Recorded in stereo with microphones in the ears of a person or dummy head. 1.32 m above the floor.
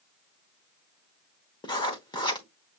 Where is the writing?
20° left (ahead or behind), 1.0 m.